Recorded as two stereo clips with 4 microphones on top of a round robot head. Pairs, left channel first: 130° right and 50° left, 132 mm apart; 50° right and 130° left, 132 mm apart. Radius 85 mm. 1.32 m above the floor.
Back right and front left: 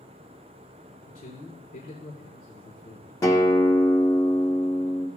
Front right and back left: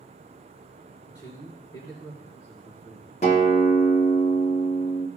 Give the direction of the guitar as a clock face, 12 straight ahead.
2 o'clock.